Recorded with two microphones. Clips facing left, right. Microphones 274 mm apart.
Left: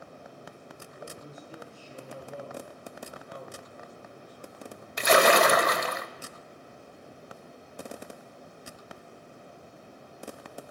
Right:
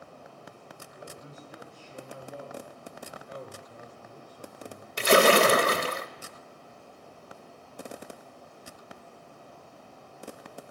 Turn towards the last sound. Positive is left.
turn(degrees=-35)  # may be behind; listen again after turning